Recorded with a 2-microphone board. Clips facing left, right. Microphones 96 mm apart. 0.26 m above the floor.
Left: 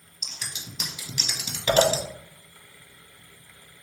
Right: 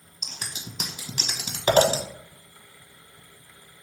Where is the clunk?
I don't hear a clunk.